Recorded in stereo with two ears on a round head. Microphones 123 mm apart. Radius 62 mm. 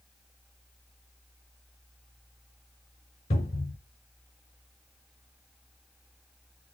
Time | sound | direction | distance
3.3 | a cupboard door | 45° left (ahead or behind) | 3.5 m